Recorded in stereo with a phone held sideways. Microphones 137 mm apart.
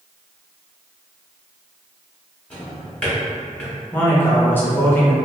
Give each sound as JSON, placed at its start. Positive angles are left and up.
{"t": 2.5, "sound": "a drawer", "side_deg": 10, "distance_m": 1.1}
{"t": 3.9, "sound": "a man speaking", "side_deg": 15, "distance_m": 0.7}